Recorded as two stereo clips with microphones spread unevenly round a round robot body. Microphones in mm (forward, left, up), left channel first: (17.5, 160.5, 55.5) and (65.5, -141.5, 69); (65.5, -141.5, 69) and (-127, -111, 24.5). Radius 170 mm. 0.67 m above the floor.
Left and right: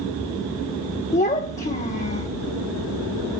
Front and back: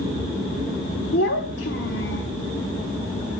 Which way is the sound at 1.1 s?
35° left.